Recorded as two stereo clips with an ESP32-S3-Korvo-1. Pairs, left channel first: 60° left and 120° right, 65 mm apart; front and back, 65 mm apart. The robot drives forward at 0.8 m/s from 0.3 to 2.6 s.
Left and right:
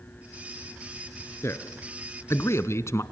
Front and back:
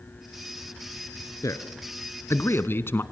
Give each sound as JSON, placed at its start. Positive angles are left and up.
{"t": 1.4, "sound": "a man speaking", "azimuth_deg": 20, "distance_m": 2.0}